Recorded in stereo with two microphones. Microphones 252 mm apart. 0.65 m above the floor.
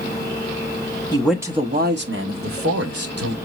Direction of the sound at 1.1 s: 15° left (ahead or behind).